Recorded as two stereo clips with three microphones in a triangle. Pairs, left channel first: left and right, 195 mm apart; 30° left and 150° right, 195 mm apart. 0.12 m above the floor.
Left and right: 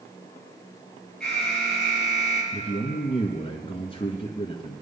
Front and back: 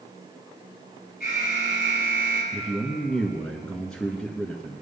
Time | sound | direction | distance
1.2 | an alarm | 5° left | 5.5 m
2.5 | a man speaking | 115° left | 1.3 m